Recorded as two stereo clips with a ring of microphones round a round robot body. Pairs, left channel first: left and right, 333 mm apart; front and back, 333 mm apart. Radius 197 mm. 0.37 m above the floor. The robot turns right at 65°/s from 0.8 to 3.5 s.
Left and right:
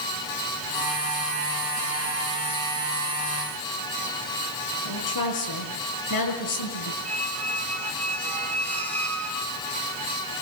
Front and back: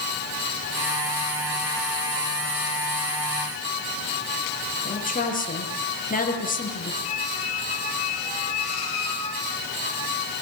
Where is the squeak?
5° left, 3.5 m.